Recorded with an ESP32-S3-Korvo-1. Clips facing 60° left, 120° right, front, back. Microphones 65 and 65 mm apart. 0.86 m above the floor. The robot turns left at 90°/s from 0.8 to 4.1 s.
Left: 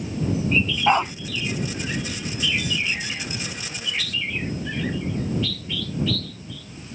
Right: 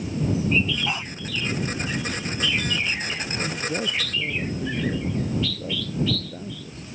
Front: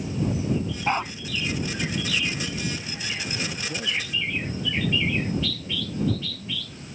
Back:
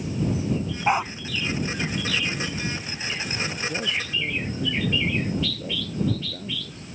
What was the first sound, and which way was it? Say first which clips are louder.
A dog barking: left 11 dB, back 4 dB; 110° left.